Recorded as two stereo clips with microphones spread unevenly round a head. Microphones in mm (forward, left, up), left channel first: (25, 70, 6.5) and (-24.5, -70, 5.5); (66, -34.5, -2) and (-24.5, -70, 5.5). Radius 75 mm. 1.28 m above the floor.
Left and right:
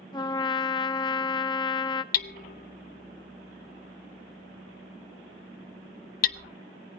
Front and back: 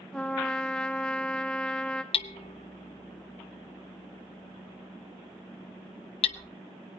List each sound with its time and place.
0.1 s a trumpet: 105° left, 0.7 m
2.1 s hammering: 55° left, 0.7 m